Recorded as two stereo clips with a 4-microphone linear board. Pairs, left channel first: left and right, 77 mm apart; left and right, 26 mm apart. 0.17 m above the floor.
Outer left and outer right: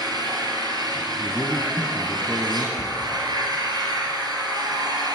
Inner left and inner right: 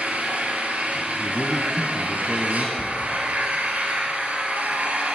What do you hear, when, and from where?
0.0 s an engine running: 60° right (ahead or behind), 2.5 m
1.2 s a man speaking: 20° right (ahead or behind), 1.1 m
2.8 s a cupboard door: 50° left (ahead or behind), 2.5 m